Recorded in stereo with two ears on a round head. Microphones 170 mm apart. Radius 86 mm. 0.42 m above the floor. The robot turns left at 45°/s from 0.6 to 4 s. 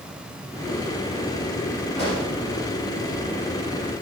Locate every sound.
2.0 s a pop: 30° left (ahead or behind), 4.5 m; by 2.3 s 15° left (ahead or behind), 4.5 m